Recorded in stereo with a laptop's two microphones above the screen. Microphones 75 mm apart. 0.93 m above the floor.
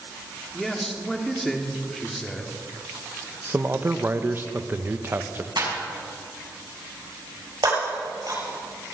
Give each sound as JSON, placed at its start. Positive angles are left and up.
{"t": 0.5, "sound": "a man speaking", "side_deg": 5, "distance_m": 2.5}
{"t": 3.5, "sound": "a man speaking", "side_deg": -30, "distance_m": 0.6}
{"t": 5.6, "sound": "a clap", "side_deg": -90, "distance_m": 5.5}
{"t": 7.6, "sound": "breaking glass", "side_deg": -65, "distance_m": 6.0}